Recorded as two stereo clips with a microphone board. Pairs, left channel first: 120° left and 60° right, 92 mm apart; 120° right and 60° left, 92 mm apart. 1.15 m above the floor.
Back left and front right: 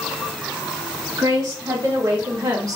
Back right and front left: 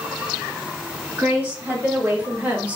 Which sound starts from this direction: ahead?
A woman speaking, at 1.2 s.